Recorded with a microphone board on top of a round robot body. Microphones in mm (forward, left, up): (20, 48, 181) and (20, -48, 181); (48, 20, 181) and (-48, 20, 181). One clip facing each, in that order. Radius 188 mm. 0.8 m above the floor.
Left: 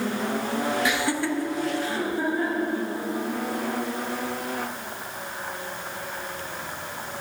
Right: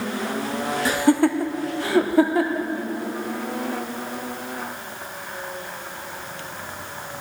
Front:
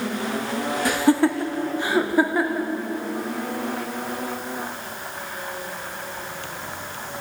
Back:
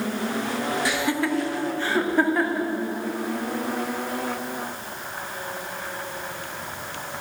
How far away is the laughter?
About 1.6 m.